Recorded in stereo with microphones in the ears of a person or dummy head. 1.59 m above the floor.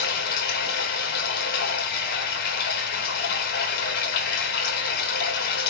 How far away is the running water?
About 2 m.